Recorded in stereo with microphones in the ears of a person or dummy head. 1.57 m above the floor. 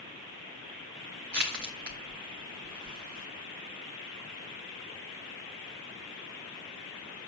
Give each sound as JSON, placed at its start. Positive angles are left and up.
{"t": 1.3, "sound": "crushing", "side_deg": -50, "distance_m": 1.7}